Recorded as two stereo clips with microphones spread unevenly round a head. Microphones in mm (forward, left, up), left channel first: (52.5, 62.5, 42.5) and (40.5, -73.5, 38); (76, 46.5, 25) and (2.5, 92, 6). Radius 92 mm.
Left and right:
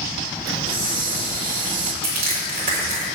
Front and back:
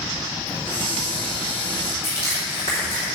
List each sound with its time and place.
0.5 s a hiss: 105° right, 1.1 m
2.0 s crushing: 145° right, 3.5 m